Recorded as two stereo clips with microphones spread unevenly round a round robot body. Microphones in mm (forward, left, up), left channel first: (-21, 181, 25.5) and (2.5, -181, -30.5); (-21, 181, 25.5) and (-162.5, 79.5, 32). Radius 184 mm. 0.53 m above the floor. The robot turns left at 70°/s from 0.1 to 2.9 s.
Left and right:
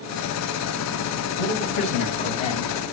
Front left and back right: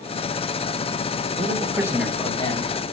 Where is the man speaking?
175° left, 3.5 m; by 2.8 s 75° left, 3.5 m.